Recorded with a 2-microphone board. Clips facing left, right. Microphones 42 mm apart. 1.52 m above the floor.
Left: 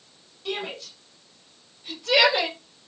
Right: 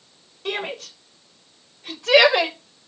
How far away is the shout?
About 5.5 m.